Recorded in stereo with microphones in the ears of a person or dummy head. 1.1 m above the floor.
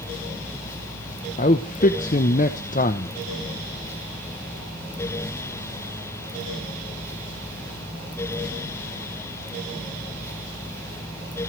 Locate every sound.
1.4 s a man speaking: 40° left (ahead or behind), 0.8 m